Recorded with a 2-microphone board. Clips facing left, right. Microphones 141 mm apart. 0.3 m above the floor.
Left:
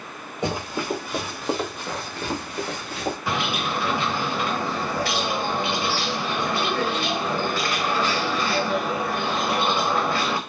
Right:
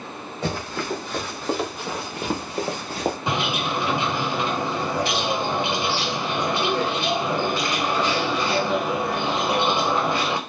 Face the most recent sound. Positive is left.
turn(degrees=-20)  # may be behind; listen again after turning